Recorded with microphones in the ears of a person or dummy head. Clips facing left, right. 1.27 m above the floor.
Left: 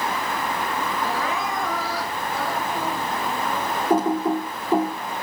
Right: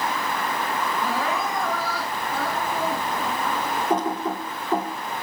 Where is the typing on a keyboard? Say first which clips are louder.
Left 6 dB; 10° left (ahead or behind), 2.5 m.